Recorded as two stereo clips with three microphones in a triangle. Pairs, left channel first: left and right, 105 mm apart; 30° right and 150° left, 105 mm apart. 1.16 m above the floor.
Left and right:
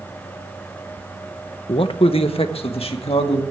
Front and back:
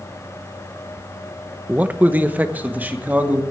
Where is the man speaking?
80° left, 0.8 m.